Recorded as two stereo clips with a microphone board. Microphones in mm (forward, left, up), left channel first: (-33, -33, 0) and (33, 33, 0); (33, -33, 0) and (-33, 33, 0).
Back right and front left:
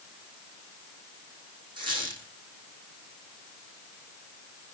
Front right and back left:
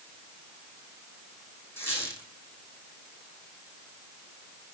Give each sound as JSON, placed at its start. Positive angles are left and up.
{"t": 1.8, "sound": "a squeak", "azimuth_deg": 15, "distance_m": 4.0}